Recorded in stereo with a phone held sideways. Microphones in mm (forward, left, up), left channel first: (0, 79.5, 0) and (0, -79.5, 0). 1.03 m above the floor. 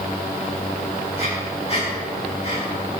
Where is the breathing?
40° left (ahead or behind), 5.5 m.